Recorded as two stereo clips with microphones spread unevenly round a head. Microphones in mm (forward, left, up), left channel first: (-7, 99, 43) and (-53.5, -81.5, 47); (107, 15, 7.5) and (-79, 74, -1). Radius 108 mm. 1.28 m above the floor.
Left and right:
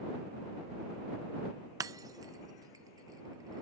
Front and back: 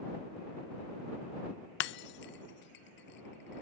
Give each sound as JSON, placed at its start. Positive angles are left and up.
{"t": 1.8, "sound": "breaking glass", "azimuth_deg": -35}